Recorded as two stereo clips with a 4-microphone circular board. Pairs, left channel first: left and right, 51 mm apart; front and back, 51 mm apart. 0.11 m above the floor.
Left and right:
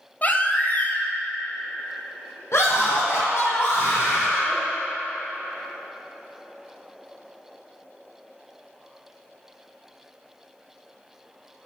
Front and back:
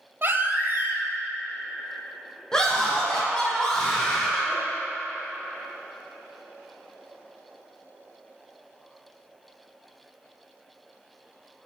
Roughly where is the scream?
Left.